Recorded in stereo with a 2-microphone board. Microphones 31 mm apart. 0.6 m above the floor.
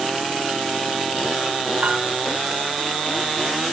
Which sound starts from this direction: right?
A piano, at 1.8 s.